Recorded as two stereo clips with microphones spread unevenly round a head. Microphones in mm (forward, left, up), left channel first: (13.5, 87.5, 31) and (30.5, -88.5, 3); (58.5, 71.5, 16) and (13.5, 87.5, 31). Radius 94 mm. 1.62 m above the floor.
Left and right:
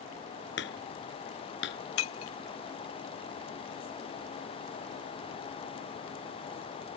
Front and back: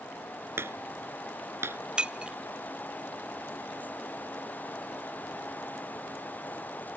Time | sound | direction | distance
0.6 | hammering | 130° left | ?
2.0 | breaking glass | 95° left | ?